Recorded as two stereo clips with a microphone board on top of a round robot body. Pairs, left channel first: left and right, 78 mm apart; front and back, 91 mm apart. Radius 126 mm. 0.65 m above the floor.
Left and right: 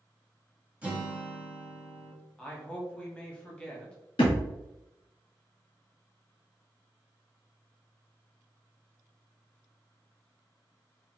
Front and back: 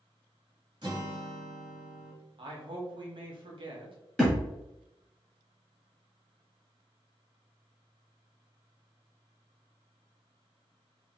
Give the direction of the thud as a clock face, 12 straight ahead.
9 o'clock.